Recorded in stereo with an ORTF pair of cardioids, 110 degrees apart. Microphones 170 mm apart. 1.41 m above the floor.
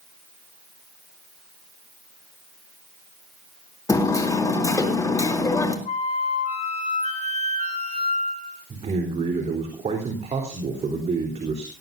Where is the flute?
40° left, 7 m.